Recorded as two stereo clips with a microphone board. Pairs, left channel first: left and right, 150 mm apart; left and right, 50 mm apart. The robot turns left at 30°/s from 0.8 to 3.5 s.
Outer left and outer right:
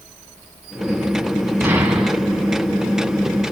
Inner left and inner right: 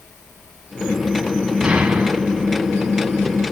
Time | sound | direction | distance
1.6 | an explosion | 15° right (ahead or behind) | 1.8 m